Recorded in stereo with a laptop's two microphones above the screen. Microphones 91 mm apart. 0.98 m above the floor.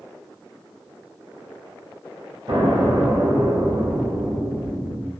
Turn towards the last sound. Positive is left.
turn(degrees=-55)  # may be behind; listen again after turning